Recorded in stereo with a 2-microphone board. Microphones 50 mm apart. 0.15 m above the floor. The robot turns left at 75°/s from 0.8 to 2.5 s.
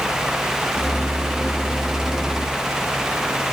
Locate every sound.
Only background noise.